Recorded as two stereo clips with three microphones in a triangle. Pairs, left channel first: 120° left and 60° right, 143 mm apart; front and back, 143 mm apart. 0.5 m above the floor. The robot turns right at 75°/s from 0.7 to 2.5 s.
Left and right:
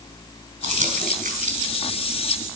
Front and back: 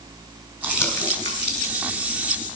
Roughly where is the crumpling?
Right.